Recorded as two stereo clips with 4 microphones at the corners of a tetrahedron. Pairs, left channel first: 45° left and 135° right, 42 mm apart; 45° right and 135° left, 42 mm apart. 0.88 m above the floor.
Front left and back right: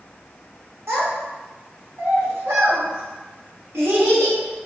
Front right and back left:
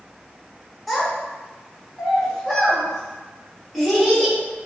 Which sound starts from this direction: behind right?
A child speaking, at 0.9 s.